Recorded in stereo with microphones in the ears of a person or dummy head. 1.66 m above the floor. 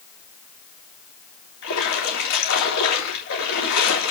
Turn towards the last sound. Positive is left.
turn(degrees=65)  # may be behind; listen again after turning